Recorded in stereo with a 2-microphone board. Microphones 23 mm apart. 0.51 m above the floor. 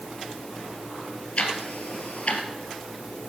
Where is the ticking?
65° left (ahead or behind), 2 m.